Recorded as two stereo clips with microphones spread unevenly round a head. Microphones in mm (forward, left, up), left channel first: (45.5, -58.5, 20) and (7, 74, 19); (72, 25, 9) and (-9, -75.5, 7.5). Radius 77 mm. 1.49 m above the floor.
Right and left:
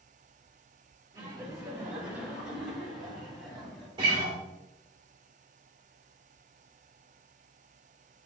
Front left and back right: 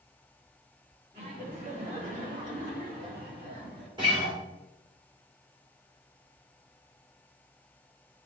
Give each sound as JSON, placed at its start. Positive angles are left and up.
{"t": 1.1, "sound": "laughter", "azimuth_deg": 175, "distance_m": 2.5}
{"t": 4.0, "sound": "a guitar", "azimuth_deg": 170, "distance_m": 2.5}